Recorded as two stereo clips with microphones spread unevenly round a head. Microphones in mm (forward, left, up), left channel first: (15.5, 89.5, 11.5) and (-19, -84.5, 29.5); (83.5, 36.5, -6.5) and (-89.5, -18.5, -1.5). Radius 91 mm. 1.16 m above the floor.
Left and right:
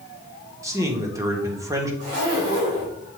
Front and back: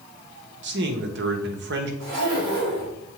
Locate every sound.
0.6 s a man speaking: 175° right, 1.4 m
2.0 s a zipper: 125° right, 3.5 m